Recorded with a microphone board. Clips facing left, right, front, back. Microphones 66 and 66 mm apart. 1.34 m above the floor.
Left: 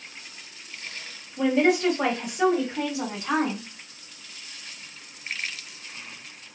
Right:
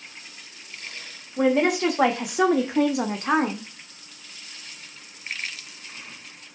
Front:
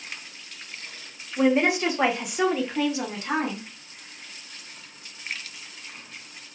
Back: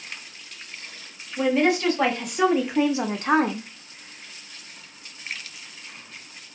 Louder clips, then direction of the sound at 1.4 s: Right 1 dB, even; 65° right.